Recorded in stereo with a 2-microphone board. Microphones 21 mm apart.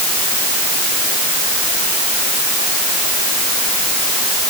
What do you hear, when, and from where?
Only background noise.